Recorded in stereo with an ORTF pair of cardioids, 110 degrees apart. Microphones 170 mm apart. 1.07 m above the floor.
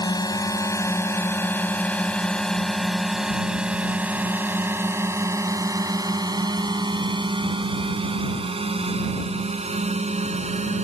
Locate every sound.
0.0 s a drone: 25° left; by 10.8 s 40° right